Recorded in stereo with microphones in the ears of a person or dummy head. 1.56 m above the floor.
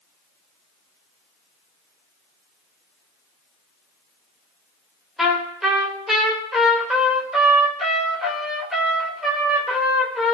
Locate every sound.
5.2 s a trumpet: centre (ahead or behind), 3 m